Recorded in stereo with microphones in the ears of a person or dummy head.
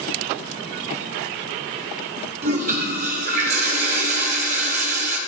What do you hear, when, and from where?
2.4 s a toilet flushing: 50° right (ahead or behind), 1.1 m